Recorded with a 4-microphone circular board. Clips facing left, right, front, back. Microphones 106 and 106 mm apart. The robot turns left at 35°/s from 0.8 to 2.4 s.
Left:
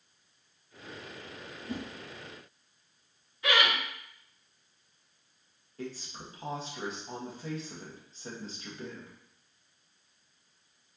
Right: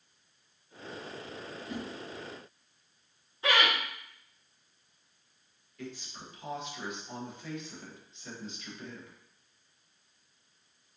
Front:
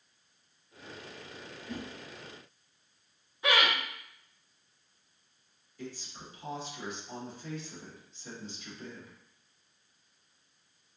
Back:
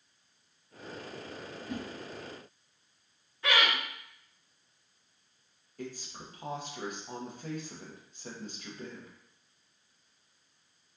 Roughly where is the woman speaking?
Behind left.